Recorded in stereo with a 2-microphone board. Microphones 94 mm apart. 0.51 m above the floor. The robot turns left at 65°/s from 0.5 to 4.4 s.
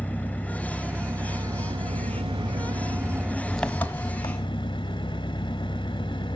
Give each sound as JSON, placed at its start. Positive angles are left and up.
{"t": 0.0, "sound": "an engine running", "azimuth_deg": 15, "distance_m": 0.8}